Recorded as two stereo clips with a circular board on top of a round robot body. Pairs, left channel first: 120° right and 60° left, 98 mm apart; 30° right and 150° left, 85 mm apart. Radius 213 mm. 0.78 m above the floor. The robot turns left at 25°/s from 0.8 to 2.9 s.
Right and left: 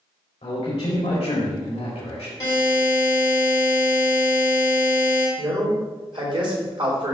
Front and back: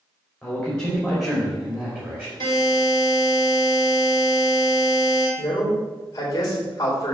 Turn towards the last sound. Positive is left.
turn(degrees=20)